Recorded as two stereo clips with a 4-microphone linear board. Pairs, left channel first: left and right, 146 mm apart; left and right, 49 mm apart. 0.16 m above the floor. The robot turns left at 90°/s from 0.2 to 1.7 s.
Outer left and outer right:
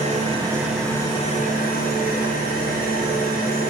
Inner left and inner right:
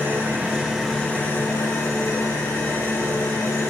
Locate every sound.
0.0 s an engine running: 125° right, 6 m; by 3.7 s 100° left, 6 m